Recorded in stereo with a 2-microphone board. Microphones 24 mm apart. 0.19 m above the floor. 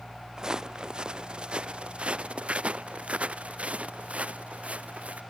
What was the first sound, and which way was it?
Footsteps, 30° right (ahead or behind).